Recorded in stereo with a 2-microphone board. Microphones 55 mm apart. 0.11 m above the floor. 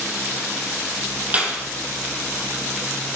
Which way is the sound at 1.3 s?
25° right (ahead or behind).